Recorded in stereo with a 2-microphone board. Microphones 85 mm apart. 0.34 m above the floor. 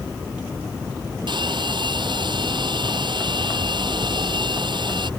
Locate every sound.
1.3 s a hair dryer: 75° right (ahead or behind)